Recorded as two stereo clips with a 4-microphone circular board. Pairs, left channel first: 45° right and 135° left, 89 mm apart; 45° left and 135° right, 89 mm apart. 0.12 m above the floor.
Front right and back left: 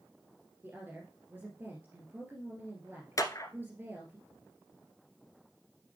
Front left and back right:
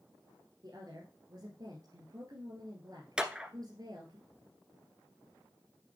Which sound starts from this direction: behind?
A woman speaking, at 0.6 s.